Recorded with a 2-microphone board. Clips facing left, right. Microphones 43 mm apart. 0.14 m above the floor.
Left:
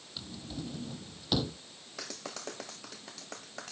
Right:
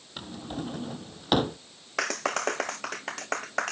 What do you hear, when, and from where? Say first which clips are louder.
0.2 s a drawer: right 6 dB; 50° right (ahead or behind)
2.0 s a clap: right 15 dB; 60° right (ahead or behind)